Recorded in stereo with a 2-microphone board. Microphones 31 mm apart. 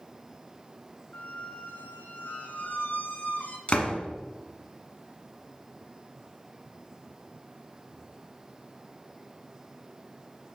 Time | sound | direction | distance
1.1 | a squeak | 75° left (ahead or behind) | 0.7 m
3.7 | a door slam | 45° left (ahead or behind) | 1.2 m